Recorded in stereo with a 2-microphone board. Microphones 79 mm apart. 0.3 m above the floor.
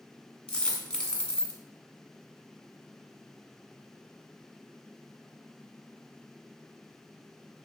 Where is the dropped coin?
10° left (ahead or behind), 0.7 m.